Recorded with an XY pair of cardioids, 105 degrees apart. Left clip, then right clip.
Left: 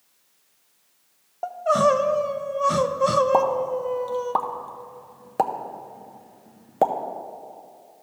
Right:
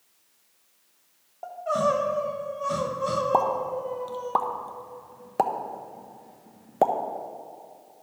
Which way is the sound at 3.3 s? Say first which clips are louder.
Left 3 dB; straight ahead.